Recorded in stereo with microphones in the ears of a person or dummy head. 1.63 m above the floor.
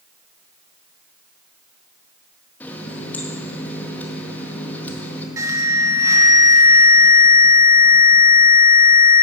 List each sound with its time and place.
2.6 s a running tap: 10° left (ahead or behind), 1.7 m
5.4 s an alarm: 20° right (ahead or behind), 2 m